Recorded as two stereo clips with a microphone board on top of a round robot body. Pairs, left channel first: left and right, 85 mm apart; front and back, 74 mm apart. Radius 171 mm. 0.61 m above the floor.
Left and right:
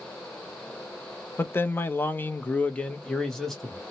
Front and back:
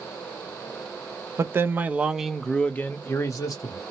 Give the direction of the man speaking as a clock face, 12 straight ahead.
7 o'clock.